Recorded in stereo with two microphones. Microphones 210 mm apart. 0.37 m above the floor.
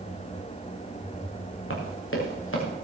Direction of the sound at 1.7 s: 80° left.